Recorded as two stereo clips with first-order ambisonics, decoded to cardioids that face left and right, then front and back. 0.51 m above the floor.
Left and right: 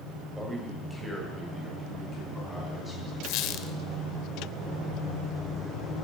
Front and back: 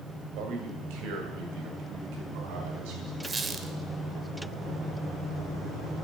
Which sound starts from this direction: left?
A squeak, at 3.2 s.